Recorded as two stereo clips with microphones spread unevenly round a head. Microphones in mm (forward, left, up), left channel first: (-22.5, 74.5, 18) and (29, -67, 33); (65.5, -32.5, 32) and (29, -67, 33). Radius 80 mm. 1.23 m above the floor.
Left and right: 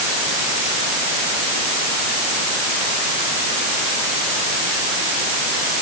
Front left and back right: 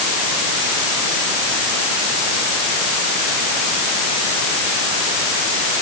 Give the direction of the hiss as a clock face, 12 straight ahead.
I don't hear a hiss.